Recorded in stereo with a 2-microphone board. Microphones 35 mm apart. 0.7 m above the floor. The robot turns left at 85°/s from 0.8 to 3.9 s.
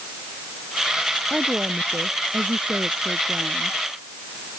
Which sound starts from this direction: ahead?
A woman speaking, at 1.3 s.